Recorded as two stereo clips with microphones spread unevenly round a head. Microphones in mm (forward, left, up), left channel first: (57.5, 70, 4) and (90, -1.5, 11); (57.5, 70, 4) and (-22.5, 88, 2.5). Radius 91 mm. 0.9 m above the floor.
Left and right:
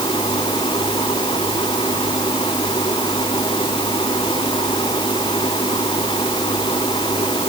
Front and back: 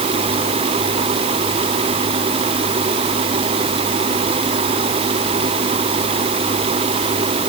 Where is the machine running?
Straight behind.